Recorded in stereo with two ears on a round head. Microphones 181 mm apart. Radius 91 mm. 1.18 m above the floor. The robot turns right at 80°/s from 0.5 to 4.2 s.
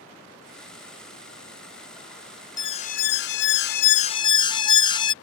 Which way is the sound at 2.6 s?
20° left.